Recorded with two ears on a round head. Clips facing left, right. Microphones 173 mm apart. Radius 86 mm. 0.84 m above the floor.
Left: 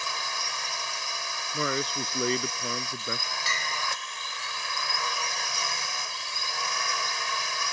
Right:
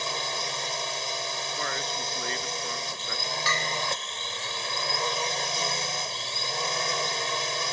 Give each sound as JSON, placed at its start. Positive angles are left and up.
{"t": 0.0, "sound": "a drone", "side_deg": -25}
{"t": 1.5, "sound": "a man speaking", "side_deg": 75}
{"t": 3.5, "sound": "a bell", "side_deg": -60}